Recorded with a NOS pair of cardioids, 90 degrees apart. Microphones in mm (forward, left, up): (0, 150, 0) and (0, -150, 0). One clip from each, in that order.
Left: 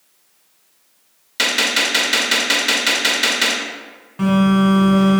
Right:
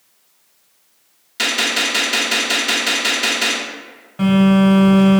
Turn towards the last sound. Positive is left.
turn(degrees=0)